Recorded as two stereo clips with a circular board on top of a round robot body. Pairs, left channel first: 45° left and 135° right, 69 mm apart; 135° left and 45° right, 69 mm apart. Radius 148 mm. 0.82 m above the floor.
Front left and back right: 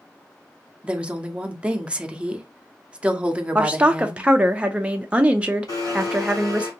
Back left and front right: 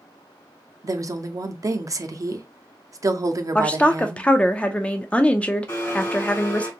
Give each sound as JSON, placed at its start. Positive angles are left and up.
{"t": 0.8, "sound": "a woman speaking", "azimuth_deg": -65, "distance_m": 0.7}
{"t": 3.5, "sound": "a woman speaking", "azimuth_deg": 180, "distance_m": 0.5}
{"t": 5.7, "sound": "a blender", "azimuth_deg": 75, "distance_m": 1.8}